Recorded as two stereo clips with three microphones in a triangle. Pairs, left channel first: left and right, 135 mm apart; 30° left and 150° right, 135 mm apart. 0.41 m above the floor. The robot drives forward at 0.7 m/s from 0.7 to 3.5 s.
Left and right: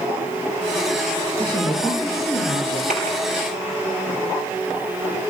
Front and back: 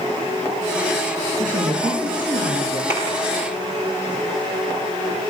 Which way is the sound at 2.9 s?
80° right.